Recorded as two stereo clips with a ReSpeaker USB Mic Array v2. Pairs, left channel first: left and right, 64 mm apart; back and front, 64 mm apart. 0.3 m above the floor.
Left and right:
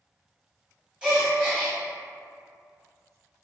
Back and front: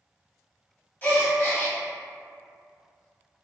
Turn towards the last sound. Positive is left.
turn(degrees=-160)